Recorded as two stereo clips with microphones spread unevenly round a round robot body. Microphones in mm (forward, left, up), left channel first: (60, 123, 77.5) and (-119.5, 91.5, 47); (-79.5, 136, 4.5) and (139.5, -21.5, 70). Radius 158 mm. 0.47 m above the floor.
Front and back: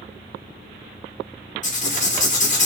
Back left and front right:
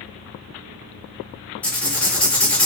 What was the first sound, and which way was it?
Writing, 65° left.